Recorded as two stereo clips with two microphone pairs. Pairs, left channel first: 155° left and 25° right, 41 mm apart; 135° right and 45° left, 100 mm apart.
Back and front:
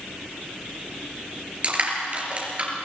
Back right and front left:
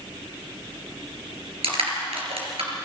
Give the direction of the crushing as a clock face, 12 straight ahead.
11 o'clock.